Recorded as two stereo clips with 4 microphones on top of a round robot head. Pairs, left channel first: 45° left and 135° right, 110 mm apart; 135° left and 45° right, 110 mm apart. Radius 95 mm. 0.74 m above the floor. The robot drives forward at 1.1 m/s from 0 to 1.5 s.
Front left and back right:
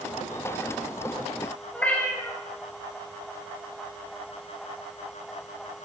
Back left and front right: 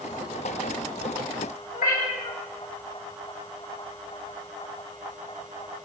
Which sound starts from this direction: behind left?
A cat meowing, at 1.7 s.